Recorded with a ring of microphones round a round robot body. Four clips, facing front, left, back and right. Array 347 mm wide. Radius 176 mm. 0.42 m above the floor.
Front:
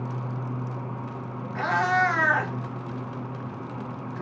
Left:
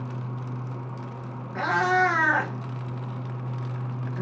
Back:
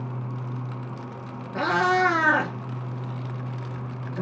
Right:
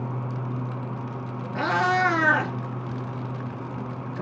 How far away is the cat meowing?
About 3 m.